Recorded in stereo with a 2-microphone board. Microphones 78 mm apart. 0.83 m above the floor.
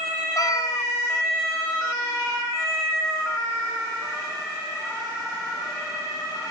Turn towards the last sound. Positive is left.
turn(degrees=55)  # may be behind; listen again after turning